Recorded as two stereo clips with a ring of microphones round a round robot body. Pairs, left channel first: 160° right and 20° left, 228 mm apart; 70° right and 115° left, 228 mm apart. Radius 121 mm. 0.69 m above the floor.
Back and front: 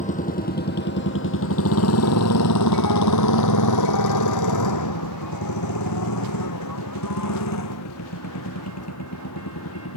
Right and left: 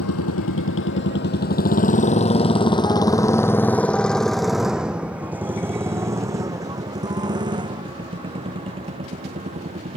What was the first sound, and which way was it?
A motorcycle, 95° right.